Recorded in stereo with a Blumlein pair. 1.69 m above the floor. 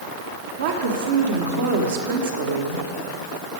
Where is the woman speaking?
60° right, 1.7 m.